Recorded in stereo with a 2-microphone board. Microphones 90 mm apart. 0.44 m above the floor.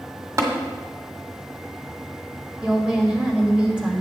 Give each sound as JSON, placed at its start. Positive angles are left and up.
{"t": 0.4, "sound": "tapping", "side_deg": -35, "distance_m": 1.6}
{"t": 2.6, "sound": "a woman speaking", "side_deg": -10, "distance_m": 1.8}